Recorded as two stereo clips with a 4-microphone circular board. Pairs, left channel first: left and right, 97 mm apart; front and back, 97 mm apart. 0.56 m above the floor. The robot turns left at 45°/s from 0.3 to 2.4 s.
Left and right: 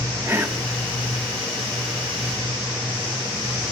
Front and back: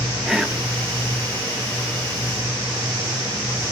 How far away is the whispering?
About 0.8 m.